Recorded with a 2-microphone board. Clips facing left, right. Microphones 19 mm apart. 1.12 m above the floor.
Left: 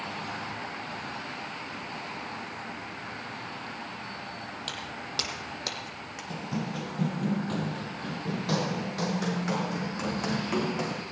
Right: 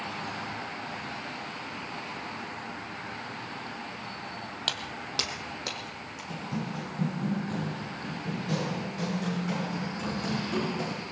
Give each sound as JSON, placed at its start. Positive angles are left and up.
{"t": 4.7, "sound": "footsteps", "side_deg": -35, "distance_m": 1.4}
{"t": 6.3, "sound": "running footsteps", "side_deg": 20, "distance_m": 1.4}